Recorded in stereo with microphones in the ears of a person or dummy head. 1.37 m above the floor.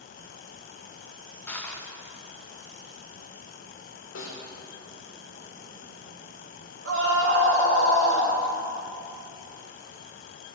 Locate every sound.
1.5 s crushing: 10° left (ahead or behind), 0.6 m
4.2 s a snare drum: 75° left (ahead or behind), 1.5 m
6.8 s a scream: 85° right, 2 m